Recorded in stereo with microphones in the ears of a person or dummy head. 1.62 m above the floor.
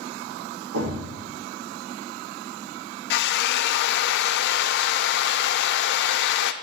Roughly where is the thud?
Right.